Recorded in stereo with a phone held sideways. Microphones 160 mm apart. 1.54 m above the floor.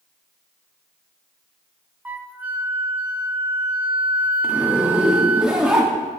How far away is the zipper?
About 1.7 m.